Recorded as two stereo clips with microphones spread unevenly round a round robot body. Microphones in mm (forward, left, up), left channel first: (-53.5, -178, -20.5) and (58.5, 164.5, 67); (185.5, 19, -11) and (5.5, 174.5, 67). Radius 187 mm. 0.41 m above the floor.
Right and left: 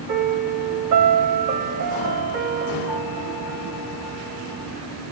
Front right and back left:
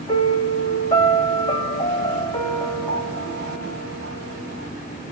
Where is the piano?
25° left, 3 m.